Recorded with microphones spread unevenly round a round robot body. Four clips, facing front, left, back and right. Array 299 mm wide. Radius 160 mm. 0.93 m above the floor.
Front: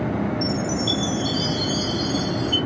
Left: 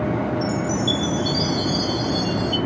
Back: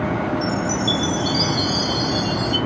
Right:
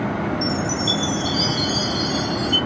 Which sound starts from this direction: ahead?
A chime, at 0.4 s.